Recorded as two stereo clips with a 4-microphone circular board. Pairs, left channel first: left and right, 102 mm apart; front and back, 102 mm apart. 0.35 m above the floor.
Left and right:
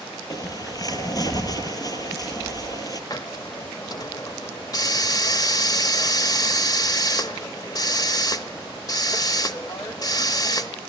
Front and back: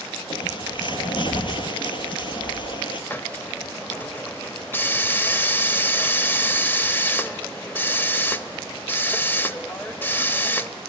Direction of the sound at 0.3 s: 40° left.